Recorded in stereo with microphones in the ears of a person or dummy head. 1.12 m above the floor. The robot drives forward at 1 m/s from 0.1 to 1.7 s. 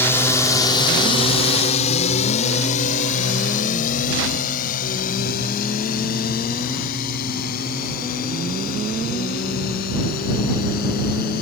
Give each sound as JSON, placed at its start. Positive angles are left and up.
{"t": 0.0, "sound": "a drone", "side_deg": 10}